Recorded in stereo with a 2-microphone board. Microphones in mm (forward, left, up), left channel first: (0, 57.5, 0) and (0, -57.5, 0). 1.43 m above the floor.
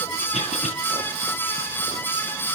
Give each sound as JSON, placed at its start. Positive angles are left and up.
{"t": 0.3, "sound": "a cough", "side_deg": 85, "distance_m": 9.0}